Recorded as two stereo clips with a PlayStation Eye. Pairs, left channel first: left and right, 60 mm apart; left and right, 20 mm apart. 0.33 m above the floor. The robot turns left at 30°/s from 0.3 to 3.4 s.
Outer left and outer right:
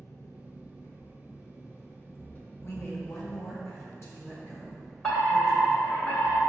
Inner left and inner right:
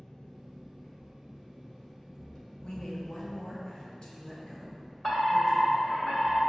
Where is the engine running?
100° left, 0.9 m; by 6.5 s 5° left, 0.9 m.